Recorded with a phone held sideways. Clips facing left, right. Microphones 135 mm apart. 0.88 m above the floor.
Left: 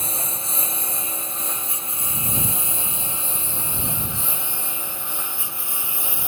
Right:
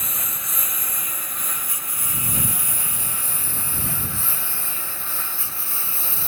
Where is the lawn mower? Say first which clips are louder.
Left 4 dB; 30° left (ahead or behind); by 6.3 s 15° left (ahead or behind).